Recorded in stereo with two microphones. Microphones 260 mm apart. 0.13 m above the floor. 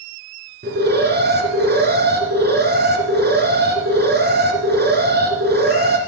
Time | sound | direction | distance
0.6 | an alarm | 40° right (ahead or behind) | 2.5 m